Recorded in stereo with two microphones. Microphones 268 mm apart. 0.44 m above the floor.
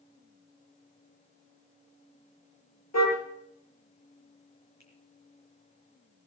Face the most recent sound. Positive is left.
turn(degrees=80)